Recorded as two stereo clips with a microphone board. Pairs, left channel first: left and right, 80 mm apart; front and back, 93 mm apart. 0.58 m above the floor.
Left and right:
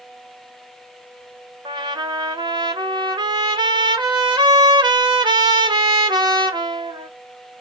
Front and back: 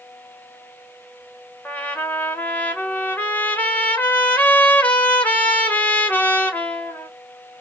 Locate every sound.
1.6 s a trumpet: 70° right, 1.5 m